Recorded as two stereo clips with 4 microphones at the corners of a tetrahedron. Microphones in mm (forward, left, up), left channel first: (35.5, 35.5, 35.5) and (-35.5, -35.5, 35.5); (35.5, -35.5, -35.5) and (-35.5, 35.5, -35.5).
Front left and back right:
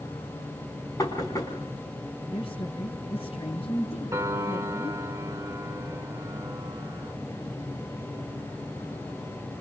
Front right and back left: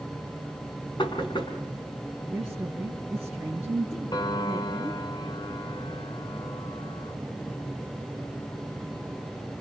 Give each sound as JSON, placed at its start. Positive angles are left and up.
{"t": 1.0, "sound": "knocking", "azimuth_deg": -10, "distance_m": 5.0}
{"t": 2.3, "sound": "a woman speaking", "azimuth_deg": 55, "distance_m": 3.5}
{"t": 4.1, "sound": "a piano", "azimuth_deg": -80, "distance_m": 1.1}